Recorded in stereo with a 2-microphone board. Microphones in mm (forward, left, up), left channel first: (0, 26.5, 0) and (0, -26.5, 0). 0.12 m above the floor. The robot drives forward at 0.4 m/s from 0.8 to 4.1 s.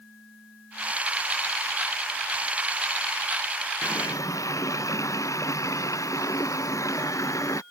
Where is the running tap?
85° left.